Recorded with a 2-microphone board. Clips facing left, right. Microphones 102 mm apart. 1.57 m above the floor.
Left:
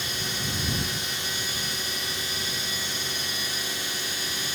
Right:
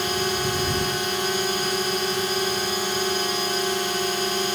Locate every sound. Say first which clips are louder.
0.0 s a drone: right 10 dB; 65° right (ahead or behind)